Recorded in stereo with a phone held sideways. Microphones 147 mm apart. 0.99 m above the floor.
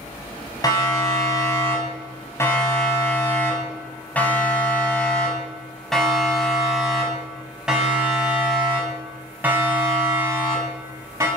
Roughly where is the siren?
Left.